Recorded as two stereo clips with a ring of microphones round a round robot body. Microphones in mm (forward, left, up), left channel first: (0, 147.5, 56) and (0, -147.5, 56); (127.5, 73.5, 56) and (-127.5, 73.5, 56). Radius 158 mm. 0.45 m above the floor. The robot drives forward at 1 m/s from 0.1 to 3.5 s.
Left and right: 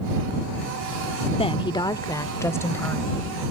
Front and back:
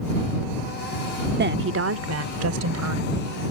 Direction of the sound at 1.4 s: 155° left.